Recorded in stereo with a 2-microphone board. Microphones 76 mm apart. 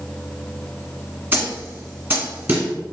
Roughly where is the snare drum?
Right.